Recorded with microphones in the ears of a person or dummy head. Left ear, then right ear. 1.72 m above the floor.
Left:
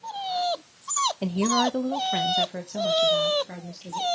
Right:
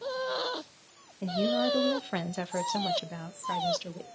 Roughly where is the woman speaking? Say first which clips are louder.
Left 4 dB; left.